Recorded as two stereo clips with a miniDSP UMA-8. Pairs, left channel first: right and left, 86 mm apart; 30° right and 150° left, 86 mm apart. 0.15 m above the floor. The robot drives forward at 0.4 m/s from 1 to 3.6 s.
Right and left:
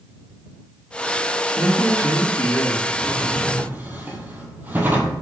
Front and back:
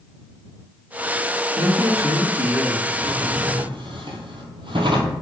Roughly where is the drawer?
Behind left.